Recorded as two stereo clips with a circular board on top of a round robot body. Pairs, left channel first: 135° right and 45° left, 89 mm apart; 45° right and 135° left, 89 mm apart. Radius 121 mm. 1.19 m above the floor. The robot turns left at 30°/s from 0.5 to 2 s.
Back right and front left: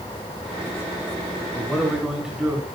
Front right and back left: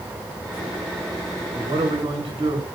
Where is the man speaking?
145° left, 1.9 m; by 2.7 s 130° left, 1.9 m.